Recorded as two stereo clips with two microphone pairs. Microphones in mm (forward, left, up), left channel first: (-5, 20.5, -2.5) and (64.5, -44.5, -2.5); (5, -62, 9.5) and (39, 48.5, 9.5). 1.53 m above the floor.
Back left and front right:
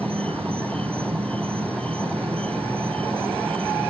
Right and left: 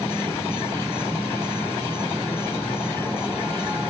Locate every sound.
0.0 s an insect: 40° right